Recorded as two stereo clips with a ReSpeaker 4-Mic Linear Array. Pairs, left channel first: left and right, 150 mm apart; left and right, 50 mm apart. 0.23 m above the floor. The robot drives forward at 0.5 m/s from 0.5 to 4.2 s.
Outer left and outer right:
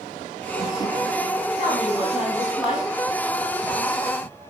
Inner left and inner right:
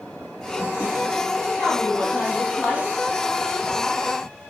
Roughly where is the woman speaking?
Left.